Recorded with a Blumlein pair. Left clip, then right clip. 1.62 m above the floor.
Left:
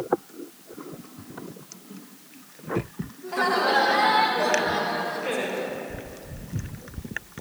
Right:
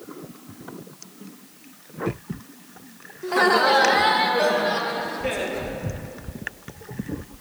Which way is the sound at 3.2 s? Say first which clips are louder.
Right 5 dB; 40° right.